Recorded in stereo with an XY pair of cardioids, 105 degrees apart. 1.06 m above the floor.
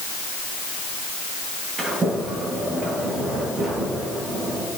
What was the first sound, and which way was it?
A sliding door, 45° right.